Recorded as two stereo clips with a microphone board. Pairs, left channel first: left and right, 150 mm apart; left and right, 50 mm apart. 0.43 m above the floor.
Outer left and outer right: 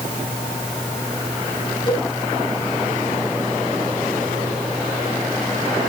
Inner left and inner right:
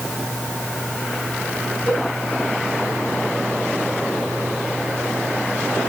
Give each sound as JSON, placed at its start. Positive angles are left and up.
{"t": 1.9, "sound": "a cowbell", "side_deg": 35, "distance_m": 4.5}